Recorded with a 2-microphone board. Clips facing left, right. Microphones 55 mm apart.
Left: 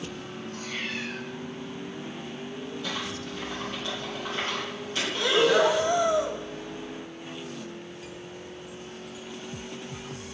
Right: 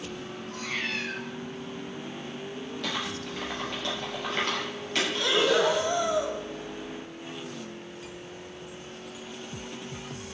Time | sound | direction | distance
0.5 | a cat meowing | 75° right (ahead or behind) | 1.8 m
2.8 | typing on a keyboard | 75° right (ahead or behind) | 4 m
5.2 | breathing | 5° left (ahead or behind) | 1.1 m